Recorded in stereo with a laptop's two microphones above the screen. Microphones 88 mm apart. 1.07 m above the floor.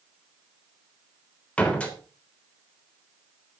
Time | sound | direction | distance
1.6 | a door slam | 15° left (ahead or behind) | 3.5 m